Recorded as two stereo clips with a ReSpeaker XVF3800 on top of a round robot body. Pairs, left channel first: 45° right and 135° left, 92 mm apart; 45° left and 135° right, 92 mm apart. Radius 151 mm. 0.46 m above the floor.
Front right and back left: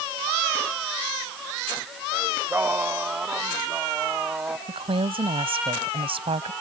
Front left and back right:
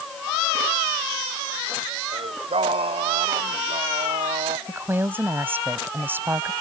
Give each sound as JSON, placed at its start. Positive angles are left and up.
{"t": 2.1, "sound": "singing", "azimuth_deg": -155}
{"t": 4.7, "sound": "a woman speaking", "azimuth_deg": 155}